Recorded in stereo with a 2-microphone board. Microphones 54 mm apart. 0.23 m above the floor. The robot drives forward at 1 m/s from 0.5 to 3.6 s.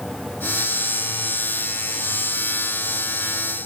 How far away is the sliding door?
No sliding door in this recording.